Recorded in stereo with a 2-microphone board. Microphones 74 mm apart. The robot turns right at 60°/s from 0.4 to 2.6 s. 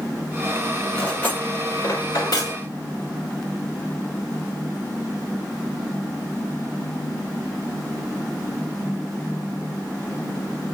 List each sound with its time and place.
0.9 s cutlery clinking: 10° left (ahead or behind), 1.7 m; by 2.6 s 60° left (ahead or behind), 1.7 m